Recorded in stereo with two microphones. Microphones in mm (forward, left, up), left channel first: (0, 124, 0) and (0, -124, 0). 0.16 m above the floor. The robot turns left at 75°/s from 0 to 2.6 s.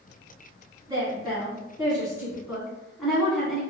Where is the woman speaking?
15° right (ahead or behind), 1.2 m; by 3.6 s centre (ahead or behind), 1.2 m.